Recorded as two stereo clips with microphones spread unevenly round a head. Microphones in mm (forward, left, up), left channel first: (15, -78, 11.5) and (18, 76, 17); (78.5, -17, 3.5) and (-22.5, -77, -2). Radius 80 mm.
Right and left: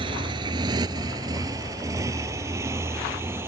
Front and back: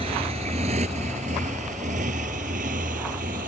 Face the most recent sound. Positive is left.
turn(degrees=165)